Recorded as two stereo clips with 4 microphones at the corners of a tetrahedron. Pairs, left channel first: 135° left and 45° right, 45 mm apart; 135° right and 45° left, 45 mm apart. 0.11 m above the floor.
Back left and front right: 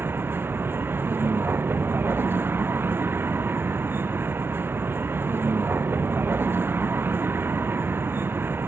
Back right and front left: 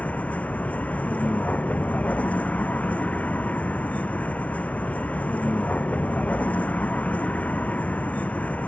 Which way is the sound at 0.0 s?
80° right.